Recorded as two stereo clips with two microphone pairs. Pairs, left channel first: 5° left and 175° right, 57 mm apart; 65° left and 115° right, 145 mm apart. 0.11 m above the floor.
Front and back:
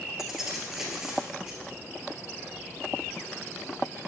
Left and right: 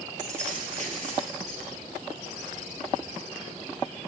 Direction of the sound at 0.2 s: 100° right.